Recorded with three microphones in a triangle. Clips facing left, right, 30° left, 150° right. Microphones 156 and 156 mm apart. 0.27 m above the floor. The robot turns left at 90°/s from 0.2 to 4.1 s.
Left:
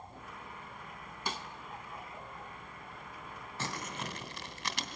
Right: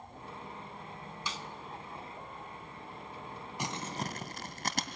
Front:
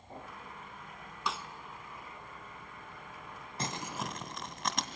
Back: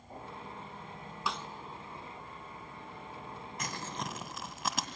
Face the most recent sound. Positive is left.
turn(degrees=-65)